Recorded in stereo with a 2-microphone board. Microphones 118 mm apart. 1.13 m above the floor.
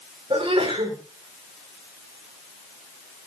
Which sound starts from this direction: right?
A sneeze, at 0.3 s.